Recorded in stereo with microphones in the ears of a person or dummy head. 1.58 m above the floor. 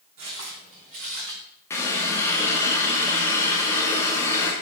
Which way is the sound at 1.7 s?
15° left (ahead or behind).